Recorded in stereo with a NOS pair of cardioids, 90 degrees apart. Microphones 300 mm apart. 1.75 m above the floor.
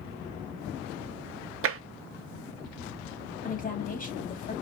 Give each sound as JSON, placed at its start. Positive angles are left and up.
{"t": 1.6, "sound": "tapping", "azimuth_deg": -45, "distance_m": 1.4}
{"t": 3.4, "sound": "a woman speaking", "azimuth_deg": 30, "distance_m": 4.5}